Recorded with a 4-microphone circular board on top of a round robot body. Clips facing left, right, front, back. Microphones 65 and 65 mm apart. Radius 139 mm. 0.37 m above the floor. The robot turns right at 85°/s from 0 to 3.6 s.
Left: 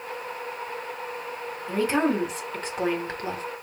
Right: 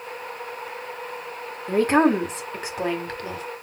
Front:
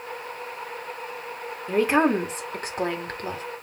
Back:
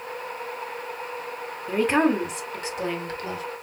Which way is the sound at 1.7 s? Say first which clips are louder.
Right 5 dB, front 1 dB; 100° right.